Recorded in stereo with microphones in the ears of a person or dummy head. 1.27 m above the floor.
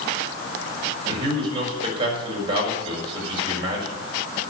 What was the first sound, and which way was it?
A man speaking, 25° right (ahead or behind).